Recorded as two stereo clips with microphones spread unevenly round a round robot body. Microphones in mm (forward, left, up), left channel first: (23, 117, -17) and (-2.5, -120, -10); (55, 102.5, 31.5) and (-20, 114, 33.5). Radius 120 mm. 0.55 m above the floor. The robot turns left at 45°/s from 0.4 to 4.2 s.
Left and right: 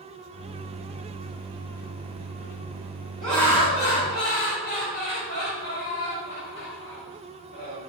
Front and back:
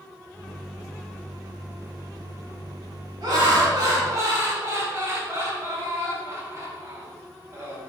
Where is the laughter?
175° left, 2 m; by 7.9 s 130° left, 2 m.